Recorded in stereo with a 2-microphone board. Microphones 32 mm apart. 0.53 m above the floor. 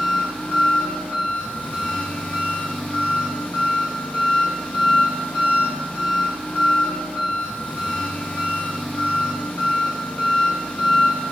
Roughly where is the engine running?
Left.